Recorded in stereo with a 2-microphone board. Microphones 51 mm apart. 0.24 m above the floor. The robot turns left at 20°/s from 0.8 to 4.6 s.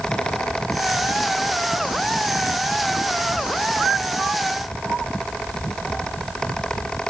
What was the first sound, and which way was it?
Only background noise.